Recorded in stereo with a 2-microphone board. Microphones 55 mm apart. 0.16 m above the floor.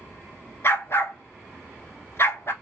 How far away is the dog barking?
About 0.7 m.